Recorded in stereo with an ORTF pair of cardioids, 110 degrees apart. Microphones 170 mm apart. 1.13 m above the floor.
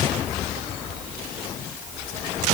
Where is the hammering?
No hammering in this recording.